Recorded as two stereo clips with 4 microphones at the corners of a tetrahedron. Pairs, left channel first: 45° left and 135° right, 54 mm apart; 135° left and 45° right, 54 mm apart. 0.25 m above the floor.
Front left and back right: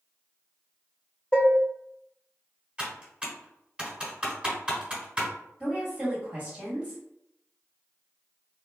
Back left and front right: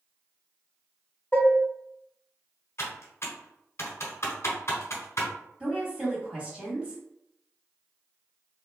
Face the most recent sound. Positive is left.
turn(degrees=-95)